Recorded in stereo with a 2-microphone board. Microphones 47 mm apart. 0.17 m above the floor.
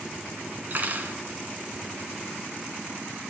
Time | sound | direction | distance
0.7 | cutlery clinking | 45° right (ahead or behind) | 1.1 m